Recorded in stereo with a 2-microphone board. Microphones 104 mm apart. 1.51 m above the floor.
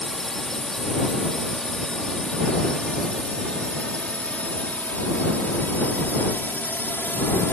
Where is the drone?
Centre (ahead or behind); by 7.5 s 15° left (ahead or behind).